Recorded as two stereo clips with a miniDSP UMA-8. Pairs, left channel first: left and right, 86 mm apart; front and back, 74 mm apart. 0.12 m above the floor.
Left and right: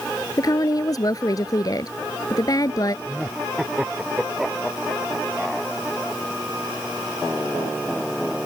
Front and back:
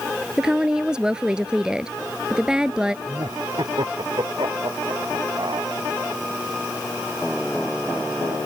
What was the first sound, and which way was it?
A woman speaking, 105° left.